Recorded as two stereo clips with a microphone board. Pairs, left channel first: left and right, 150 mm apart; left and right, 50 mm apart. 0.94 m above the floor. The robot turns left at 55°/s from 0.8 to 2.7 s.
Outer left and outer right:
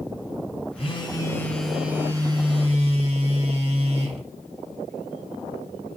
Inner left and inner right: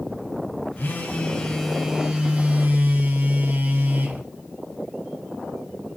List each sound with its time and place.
0.8 s a phone buzzing: 50° left, 1.2 m; by 4.2 s 55° right, 1.2 m